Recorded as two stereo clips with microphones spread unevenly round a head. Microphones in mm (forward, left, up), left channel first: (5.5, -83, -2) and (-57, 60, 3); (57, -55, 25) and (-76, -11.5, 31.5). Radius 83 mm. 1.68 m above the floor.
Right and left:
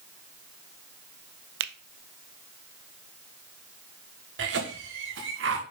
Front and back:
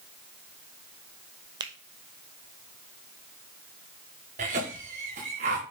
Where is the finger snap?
95° left, 0.6 m.